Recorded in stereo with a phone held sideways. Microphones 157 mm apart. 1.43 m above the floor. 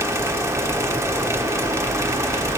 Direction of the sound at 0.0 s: 20° right (ahead or behind).